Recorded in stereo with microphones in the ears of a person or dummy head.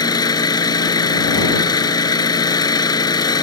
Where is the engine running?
30° left (ahead or behind).